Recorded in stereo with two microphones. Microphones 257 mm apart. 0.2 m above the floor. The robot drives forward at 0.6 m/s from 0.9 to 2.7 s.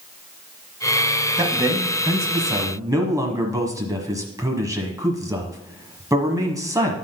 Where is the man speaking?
15° right (ahead or behind), 1.2 m.